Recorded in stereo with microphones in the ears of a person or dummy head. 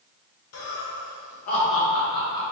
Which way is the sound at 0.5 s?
75° left (ahead or behind).